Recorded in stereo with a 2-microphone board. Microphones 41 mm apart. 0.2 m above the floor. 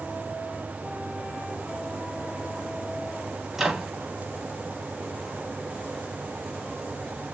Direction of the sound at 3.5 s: 5° right (ahead or behind).